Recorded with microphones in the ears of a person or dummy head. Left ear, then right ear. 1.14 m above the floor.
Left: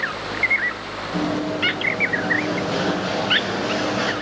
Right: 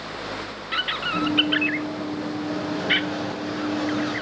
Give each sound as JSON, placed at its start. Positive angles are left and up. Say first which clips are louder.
{"t": 1.1, "sound": "running footsteps", "louder": "right 3 dB", "side_deg": 65, "distance_m": 5.5}